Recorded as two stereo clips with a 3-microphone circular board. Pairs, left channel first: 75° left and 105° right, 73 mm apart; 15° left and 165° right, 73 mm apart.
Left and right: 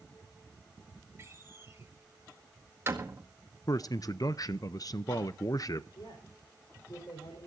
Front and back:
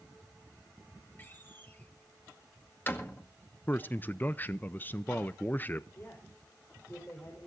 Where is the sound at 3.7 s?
75° left, 0.5 m.